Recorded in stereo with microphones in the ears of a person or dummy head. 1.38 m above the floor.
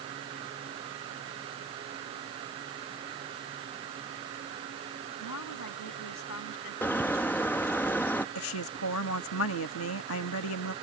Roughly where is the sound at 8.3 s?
Left.